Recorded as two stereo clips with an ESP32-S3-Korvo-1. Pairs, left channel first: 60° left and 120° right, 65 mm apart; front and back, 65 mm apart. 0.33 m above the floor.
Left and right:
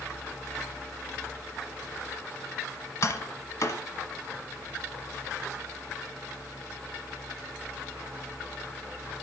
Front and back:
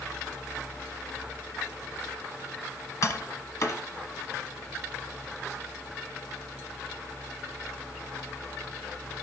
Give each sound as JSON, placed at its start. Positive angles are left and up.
{"t": 3.0, "sound": "tapping", "azimuth_deg": 35, "distance_m": 1.0}